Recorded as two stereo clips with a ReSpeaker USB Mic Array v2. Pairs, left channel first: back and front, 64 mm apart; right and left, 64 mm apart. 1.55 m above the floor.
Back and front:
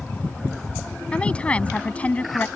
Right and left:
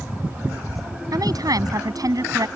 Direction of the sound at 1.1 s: 105° left.